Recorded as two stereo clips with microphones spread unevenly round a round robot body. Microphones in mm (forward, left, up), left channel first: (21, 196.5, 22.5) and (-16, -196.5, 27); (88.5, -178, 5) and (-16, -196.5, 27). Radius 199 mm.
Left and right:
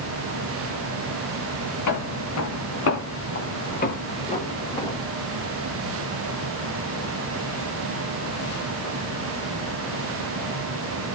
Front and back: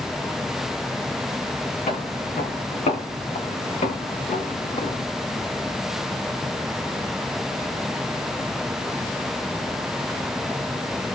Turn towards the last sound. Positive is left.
turn(degrees=0)